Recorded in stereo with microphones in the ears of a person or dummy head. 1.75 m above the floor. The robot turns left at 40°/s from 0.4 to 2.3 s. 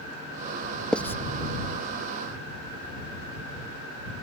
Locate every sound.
0.9 s writing: 5° left (ahead or behind); by 1.2 s 15° left (ahead or behind)